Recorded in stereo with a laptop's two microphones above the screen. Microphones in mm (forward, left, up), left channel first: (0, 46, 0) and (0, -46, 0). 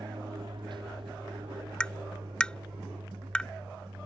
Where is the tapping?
10° left (ahead or behind).